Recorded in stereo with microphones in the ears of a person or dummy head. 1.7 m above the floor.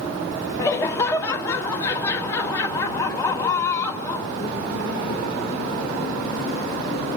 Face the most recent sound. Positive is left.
turn(degrees=20)  # may be behind; listen again after turning